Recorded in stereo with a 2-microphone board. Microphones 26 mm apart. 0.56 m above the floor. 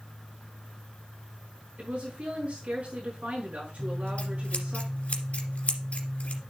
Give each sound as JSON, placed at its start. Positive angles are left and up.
{"t": 1.8, "sound": "a woman speaking", "side_deg": -75, "distance_m": 6.0}
{"t": 3.8, "sound": "scissors", "side_deg": 60, "distance_m": 2.0}